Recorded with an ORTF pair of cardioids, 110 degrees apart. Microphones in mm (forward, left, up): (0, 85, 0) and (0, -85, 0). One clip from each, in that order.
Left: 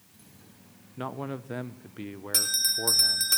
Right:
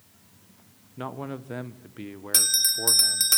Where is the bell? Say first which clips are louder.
Right 3 dB; 20° right, 1.7 m.